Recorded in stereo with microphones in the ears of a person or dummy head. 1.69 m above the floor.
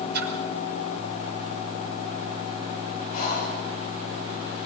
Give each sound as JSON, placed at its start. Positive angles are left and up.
{"t": 0.1, "sound": "a splash", "side_deg": -50, "distance_m": 5.0}
{"t": 3.1, "sound": "breathing", "side_deg": 30, "distance_m": 7.0}